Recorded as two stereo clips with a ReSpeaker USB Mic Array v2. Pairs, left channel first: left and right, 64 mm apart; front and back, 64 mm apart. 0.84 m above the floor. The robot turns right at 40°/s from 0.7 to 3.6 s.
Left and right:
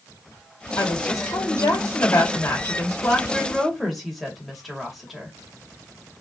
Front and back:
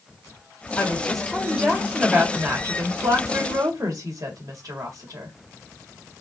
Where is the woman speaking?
70° left, 1.9 m; by 5.3 s straight behind, 1.9 m.